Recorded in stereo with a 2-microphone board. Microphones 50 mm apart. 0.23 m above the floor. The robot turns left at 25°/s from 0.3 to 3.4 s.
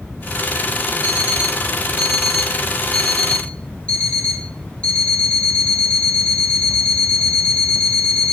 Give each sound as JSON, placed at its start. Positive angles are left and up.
{"t": 1.0, "sound": "an alarm clock", "azimuth_deg": -145, "distance_m": 3.5}